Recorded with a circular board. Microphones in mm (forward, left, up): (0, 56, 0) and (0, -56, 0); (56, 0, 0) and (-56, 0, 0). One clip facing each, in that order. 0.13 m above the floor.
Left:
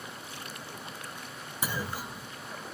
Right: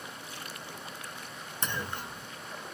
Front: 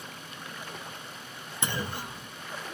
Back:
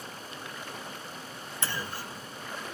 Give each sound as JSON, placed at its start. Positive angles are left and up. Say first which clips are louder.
{"t": 1.6, "sound": "a clunk", "louder": "left 1 dB, front 3 dB", "azimuth_deg": 20}